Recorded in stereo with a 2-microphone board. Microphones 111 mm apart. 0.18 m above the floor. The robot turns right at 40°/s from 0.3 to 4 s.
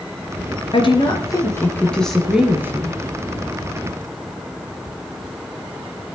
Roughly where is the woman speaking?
Behind left.